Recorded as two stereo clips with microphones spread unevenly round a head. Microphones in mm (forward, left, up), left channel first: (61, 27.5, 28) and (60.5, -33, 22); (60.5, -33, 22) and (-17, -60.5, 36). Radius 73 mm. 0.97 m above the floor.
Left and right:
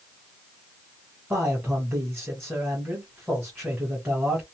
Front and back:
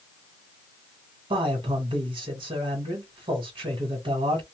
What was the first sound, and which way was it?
A man speaking, 155° right.